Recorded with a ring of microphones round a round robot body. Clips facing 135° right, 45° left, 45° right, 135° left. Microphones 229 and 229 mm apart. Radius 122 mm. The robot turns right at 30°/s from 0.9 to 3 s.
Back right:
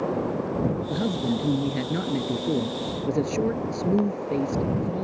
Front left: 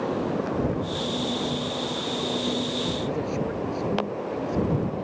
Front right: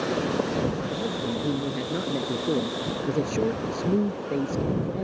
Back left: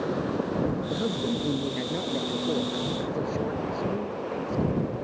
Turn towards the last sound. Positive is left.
turn(degrees=-90)